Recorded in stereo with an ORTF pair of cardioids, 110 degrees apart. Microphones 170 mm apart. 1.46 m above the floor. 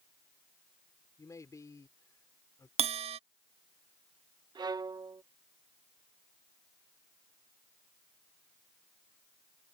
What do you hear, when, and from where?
1.2 s a man speaking: 20° left
2.8 s a bell: 35° right
4.5 s a violin: 25° right